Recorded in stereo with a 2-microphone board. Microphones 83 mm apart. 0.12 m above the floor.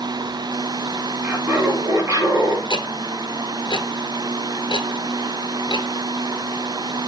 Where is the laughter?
25° right (ahead or behind), 2.5 m; by 2.6 s 50° right (ahead or behind), 2.5 m.